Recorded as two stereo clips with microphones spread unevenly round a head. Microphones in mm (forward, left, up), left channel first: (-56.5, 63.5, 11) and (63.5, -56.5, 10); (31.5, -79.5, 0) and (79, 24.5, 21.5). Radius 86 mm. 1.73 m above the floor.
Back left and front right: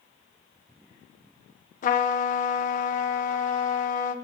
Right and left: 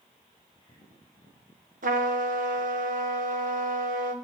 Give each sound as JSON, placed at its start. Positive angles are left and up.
{"t": 1.8, "sound": "a trumpet", "azimuth_deg": 90, "distance_m": 1.3}